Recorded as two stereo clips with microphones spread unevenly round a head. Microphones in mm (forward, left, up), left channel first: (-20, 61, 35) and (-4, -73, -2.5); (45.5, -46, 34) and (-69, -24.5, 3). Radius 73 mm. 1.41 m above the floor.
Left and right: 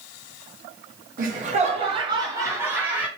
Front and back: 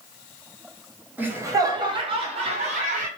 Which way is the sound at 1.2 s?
110° right.